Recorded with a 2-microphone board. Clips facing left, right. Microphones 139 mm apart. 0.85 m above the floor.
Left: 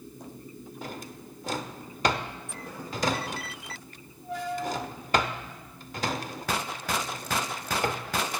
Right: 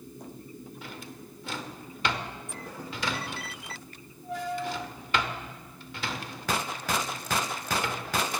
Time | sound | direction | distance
0.8 | a drawer | 40° left (ahead or behind) | 0.8 m